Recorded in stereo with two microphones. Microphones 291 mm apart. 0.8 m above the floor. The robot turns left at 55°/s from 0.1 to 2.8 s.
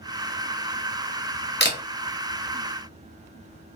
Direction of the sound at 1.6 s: 35° left (ahead or behind).